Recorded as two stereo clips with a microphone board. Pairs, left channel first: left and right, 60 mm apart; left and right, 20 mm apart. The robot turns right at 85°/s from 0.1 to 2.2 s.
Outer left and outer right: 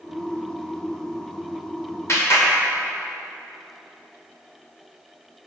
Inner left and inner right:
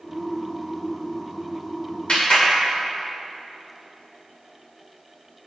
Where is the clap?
50° left (ahead or behind), 2 m; by 2.5 s 60° left (ahead or behind), 2 m.